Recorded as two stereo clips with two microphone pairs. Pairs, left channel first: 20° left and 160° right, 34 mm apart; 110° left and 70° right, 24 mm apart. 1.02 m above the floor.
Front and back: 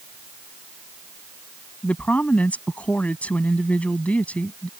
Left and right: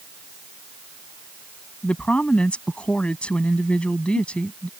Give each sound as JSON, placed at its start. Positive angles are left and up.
{"t": 1.8, "sound": "a woman speaking", "azimuth_deg": 70}